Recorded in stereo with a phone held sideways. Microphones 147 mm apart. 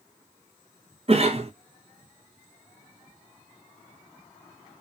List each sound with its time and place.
1.1 s a cough: 45° right (ahead or behind), 0.7 m